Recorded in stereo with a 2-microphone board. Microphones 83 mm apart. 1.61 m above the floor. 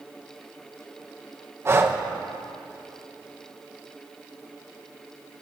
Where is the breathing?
35° right (ahead or behind), 1.0 m.